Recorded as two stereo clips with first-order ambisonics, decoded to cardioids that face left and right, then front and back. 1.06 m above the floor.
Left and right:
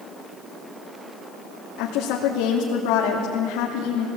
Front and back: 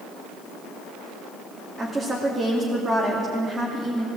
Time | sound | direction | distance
1.8 | a woman speaking | 100° left | 2.5 m